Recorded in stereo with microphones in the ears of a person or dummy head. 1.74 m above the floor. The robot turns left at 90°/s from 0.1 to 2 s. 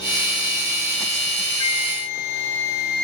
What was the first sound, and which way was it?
A flute, 150° left.